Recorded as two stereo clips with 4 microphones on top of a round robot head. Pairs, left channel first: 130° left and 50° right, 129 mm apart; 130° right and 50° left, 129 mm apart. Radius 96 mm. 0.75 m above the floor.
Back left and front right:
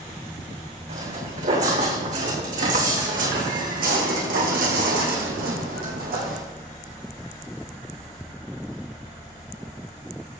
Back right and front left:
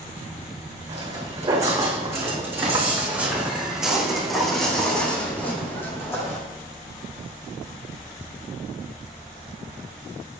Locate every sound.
0.9 s footsteps: 10° right, 4 m; by 6.4 s 60° right, 3 m